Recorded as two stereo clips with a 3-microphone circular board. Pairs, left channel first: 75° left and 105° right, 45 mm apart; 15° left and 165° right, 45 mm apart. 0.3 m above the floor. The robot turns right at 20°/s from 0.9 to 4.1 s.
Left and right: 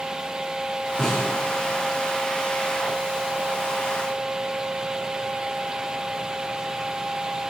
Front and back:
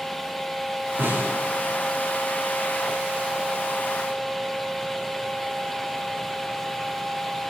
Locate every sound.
1.0 s a snare drum: 150° left, 6.5 m; by 1.3 s 160° left, 6.5 m